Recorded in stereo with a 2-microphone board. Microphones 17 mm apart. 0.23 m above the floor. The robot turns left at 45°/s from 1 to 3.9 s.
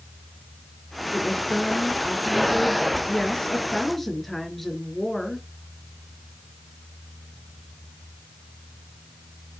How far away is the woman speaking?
About 4 m.